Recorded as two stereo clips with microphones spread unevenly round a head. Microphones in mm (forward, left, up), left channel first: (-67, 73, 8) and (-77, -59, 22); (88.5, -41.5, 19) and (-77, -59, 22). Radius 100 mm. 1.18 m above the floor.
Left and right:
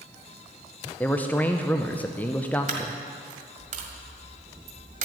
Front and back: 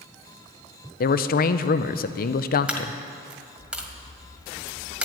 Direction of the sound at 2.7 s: 95° right.